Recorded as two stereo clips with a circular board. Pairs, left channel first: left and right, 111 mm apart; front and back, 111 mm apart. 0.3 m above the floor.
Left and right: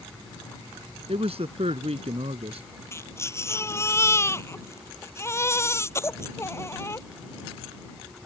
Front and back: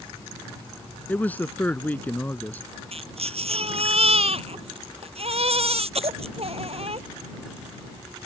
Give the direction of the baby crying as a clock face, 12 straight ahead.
7 o'clock.